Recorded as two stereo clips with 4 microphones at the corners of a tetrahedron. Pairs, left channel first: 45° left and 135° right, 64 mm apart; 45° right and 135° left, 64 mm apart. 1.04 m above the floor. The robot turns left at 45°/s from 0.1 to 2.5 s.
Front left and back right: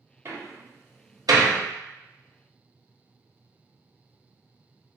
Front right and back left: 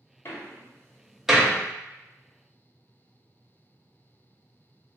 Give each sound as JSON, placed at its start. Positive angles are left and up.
{"t": 0.2, "sound": "a door slam", "azimuth_deg": -95, "distance_m": 0.8}